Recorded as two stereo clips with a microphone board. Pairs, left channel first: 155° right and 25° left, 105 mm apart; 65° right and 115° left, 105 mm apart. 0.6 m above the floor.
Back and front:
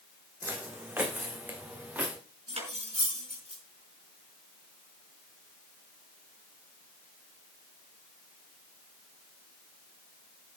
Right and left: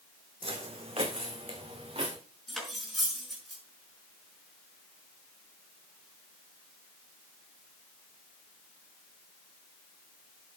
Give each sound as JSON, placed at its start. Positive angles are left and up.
{"t": 0.4, "sound": "footsteps", "azimuth_deg": 90, "distance_m": 1.9}
{"t": 2.5, "sound": "cutlery clinking", "azimuth_deg": 20, "distance_m": 5.0}